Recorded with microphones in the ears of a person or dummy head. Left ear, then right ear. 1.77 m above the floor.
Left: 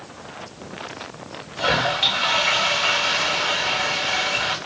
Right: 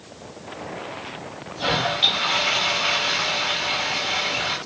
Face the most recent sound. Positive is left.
turn(degrees=5)  # may be behind; listen again after turning